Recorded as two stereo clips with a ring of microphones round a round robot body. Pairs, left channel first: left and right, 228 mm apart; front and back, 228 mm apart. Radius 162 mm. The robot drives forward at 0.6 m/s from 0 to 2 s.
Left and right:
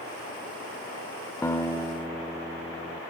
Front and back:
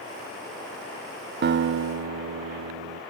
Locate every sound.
1.4 s a guitar: 165° left, 0.5 m; by 3.0 s 175° left, 0.8 m